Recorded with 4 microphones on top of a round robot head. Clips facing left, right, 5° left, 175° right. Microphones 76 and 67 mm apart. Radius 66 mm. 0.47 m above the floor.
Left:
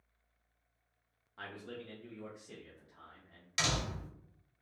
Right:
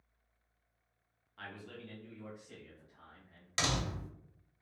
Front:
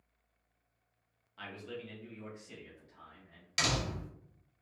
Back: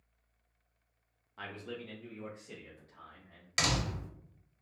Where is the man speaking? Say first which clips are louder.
Left 2 dB, back 1 dB; 145° left, 0.8 m; by 3.5 s 135° left, 1.8 m.